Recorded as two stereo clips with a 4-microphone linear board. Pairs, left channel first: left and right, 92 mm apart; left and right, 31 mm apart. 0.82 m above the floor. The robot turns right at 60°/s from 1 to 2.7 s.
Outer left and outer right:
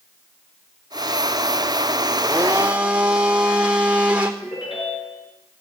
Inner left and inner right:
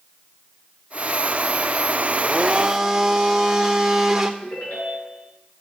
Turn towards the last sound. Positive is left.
turn(degrees=90)